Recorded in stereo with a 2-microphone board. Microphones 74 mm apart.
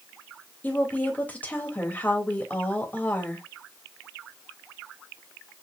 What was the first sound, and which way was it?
A woman speaking, 20° left (ahead or behind).